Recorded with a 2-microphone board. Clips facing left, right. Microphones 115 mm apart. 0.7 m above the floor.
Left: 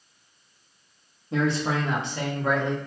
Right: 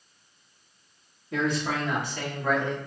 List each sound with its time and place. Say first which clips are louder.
1.3 s a man speaking: left 3 dB; 30° left (ahead or behind), 1.0 m; by 2.9 s 15° left (ahead or behind), 1.2 m